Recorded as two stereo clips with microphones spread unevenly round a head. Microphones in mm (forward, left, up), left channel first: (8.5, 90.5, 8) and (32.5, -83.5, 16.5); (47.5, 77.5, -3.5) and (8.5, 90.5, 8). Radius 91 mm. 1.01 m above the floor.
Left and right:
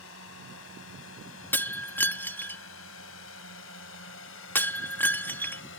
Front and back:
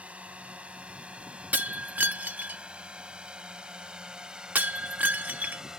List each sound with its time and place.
0.0 s a drone: 105° left; by 5.8 s 90° left
1.5 s breaking glass: straight behind